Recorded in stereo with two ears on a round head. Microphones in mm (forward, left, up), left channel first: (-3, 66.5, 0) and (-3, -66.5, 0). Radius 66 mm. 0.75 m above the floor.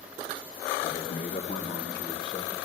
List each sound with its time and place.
0.8 s a man speaking: 45° left (ahead or behind), 1.2 m; by 2.5 s 30° left (ahead or behind), 2.5 m